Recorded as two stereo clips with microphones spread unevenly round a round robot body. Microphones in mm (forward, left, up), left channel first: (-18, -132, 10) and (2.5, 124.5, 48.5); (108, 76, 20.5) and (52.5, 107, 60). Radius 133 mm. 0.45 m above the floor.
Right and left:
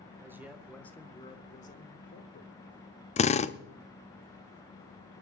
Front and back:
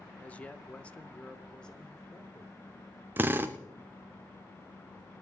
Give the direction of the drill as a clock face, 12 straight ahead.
4 o'clock.